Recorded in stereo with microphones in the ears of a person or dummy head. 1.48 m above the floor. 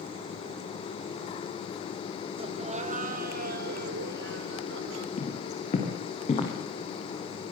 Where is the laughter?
30° right (ahead or behind), 1.9 m; by 5.1 s 75° right (ahead or behind), 3 m.